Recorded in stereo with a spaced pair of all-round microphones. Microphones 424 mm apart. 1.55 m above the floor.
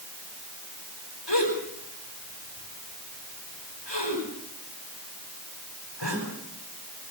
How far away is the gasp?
About 9 m.